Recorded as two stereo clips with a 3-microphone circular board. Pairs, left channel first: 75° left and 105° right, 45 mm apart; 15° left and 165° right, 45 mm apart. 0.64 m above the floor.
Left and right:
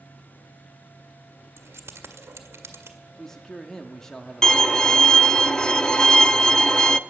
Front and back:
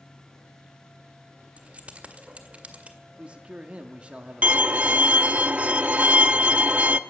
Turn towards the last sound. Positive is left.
turn(degrees=145)